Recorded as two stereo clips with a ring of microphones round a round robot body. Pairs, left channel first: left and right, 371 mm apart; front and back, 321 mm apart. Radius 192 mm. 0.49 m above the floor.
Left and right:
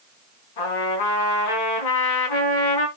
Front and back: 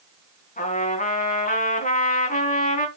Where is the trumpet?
65° left, 4.5 m.